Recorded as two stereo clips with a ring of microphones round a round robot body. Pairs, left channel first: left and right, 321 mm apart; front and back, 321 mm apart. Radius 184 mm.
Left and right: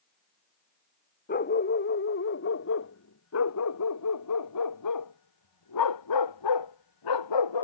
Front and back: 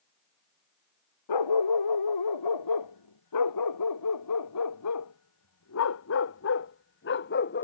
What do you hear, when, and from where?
1.3 s a dog barking: 25° left; by 7.6 s 65° left